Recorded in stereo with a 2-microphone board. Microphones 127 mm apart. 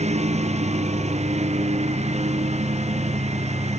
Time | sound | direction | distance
0.0 | a lawn mower | 60° right (ahead or behind) | ?